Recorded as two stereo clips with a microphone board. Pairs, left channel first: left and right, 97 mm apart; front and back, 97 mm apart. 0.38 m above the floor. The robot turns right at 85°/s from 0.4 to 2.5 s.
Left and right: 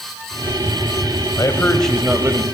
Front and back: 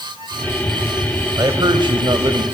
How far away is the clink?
I don't hear a clink.